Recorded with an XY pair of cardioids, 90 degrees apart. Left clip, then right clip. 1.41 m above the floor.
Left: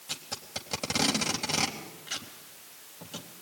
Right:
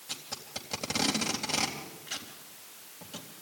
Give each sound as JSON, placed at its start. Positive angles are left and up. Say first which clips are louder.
{"t": 0.1, "sound": "tape being pulled", "louder": "left 2 dB", "azimuth_deg": 25, "distance_m": 3.5}